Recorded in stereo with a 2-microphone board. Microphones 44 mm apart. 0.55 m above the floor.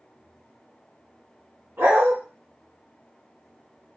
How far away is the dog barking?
About 2.0 m.